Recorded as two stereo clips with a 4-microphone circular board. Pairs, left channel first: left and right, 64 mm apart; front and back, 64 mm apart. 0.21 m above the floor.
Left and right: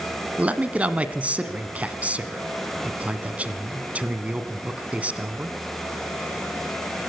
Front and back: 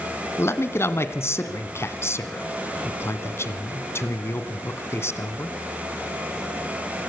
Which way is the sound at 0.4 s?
25° right.